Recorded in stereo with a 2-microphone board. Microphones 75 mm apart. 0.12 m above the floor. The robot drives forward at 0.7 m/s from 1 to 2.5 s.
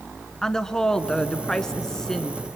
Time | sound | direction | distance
0.4 | a woman speaking | 10° left (ahead or behind) | 1.1 m